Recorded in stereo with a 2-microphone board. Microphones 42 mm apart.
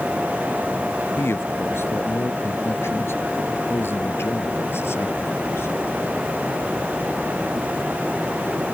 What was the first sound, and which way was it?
A man speaking, 80° left.